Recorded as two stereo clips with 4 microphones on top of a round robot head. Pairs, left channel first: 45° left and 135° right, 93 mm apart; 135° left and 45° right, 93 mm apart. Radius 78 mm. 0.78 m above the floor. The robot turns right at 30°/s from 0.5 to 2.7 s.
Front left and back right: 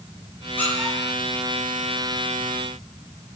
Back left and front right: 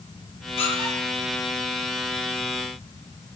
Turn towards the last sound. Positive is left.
turn(degrees=180)